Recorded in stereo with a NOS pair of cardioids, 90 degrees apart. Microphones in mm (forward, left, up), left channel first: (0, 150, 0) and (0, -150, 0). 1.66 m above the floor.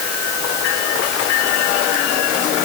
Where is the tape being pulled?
No tape being pulled in this recording.